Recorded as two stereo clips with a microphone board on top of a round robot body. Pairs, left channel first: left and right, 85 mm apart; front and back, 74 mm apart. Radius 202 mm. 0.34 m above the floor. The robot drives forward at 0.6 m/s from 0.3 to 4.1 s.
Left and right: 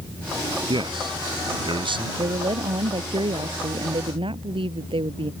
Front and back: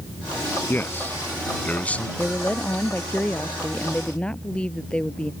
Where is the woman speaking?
70° right; by 5.3 s 75° right.